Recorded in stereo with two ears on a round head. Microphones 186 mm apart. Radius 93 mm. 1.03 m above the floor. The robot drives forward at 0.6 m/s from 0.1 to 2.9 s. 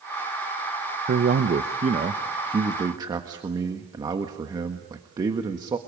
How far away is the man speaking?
About 0.7 m.